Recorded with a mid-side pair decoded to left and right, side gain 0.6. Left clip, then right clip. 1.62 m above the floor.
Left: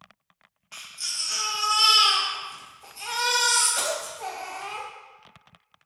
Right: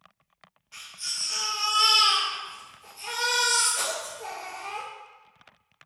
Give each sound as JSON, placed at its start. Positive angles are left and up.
{"t": 0.7, "sound": "a baby crying", "azimuth_deg": 40, "distance_m": 1.7}